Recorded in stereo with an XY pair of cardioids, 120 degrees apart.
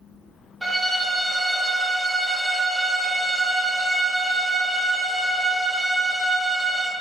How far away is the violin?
About 0.6 m.